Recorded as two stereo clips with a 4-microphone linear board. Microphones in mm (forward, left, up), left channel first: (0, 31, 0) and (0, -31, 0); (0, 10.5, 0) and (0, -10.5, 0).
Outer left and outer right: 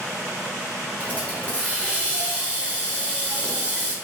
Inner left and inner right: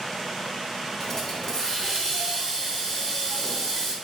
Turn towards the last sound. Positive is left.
turn(degrees=25)  # may be behind; listen again after turning